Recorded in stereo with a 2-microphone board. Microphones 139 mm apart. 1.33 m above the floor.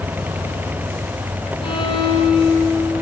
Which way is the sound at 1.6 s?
40° left (ahead or behind).